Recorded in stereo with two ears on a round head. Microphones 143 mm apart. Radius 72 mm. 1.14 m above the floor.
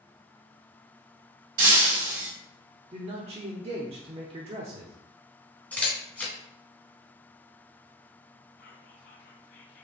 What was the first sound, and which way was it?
Breaking glass, 55° right (ahead or behind).